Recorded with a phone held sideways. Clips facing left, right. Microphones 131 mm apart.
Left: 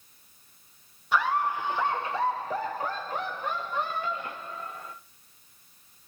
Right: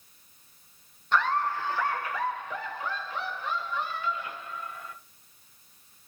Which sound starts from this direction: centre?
Laughter, at 1.1 s.